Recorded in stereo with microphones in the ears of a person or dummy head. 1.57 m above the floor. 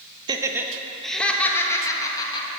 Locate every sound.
0.3 s laughter: 20° right (ahead or behind), 0.7 m; by 2.5 s 25° left (ahead or behind), 1.5 m